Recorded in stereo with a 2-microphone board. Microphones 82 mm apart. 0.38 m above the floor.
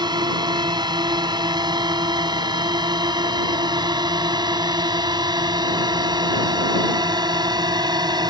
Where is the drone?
60° right (ahead or behind).